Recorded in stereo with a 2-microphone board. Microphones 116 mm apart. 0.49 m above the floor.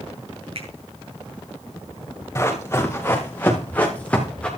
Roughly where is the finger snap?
Right.